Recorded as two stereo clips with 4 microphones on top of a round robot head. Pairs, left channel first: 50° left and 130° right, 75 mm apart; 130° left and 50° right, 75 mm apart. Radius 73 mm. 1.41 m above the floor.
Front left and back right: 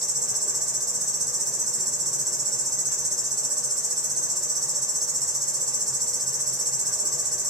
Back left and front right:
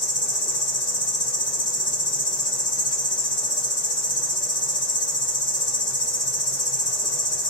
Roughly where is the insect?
Behind left.